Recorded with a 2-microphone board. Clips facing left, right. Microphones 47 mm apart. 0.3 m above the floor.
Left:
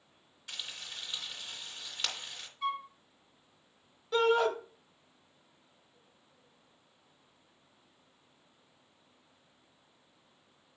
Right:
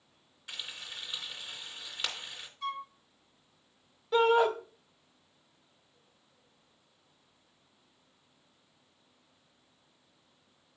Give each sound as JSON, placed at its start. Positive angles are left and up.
{"t": 0.5, "sound": "frying", "side_deg": -5, "distance_m": 2.5}
{"t": 2.6, "sound": "a flute", "side_deg": 10, "distance_m": 0.9}
{"t": 4.1, "sound": "a shout", "side_deg": -10, "distance_m": 1.3}